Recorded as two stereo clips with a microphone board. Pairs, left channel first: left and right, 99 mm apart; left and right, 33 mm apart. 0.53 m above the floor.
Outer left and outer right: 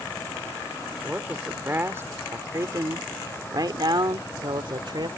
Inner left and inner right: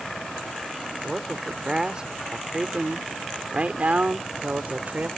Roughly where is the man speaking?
Centre.